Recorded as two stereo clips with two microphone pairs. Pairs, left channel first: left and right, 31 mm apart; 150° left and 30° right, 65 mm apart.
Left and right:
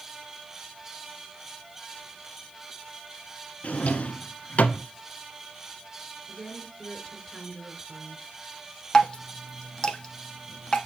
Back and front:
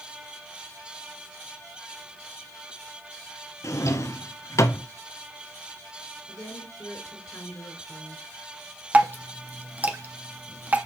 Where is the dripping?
30° left, 0.9 m.